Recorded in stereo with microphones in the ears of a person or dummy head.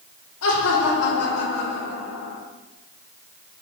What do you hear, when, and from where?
0.4 s laughter: 85° left, 3 m; by 2.4 s 80° left, 2 m